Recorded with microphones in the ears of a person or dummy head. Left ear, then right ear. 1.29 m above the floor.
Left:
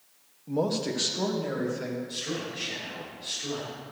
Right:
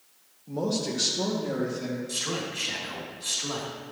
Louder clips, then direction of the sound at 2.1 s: Right 3 dB; 45° right (ahead or behind).